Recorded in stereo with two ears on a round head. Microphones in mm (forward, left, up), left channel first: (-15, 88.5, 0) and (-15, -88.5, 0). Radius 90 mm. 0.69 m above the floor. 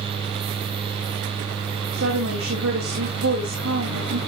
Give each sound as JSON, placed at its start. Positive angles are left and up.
{"t": 1.9, "sound": "a woman speaking", "side_deg": -65, "distance_m": 3.5}